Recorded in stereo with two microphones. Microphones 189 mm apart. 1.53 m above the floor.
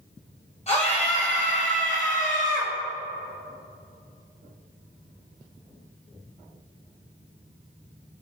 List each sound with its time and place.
0.7 s a scream: 35° left (ahead or behind), 7.5 m; by 2.7 s 50° left (ahead or behind), 7.5 m